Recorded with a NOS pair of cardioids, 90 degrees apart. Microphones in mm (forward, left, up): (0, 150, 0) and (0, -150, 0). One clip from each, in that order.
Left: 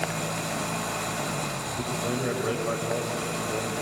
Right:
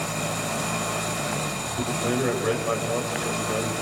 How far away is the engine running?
About 2 m.